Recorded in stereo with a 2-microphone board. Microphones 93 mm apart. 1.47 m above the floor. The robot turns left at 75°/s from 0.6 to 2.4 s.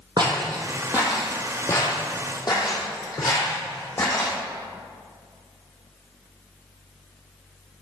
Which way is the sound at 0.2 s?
50° right (ahead or behind).